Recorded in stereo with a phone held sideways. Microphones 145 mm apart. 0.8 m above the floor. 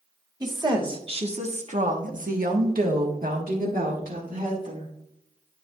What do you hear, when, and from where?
0.4 s a woman speaking: 25° right (ahead or behind), 1.7 m; by 4.9 s 60° right (ahead or behind), 2.5 m